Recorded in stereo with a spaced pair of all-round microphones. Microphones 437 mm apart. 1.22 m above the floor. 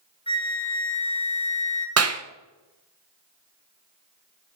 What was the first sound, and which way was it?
A flute, 10° left (ahead or behind).